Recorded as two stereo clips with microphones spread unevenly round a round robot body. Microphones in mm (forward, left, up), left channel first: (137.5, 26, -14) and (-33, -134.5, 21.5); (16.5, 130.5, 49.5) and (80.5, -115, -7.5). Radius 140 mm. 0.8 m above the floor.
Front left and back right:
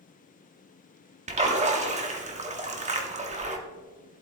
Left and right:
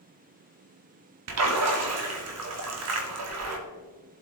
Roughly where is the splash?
Right.